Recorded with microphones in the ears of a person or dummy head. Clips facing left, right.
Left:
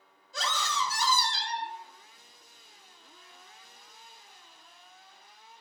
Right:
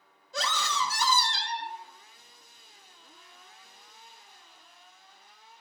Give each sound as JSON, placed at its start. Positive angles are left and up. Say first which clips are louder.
{"t": 0.3, "sound": "a scream", "louder": "right 1 dB", "side_deg": -55, "distance_m": 0.6}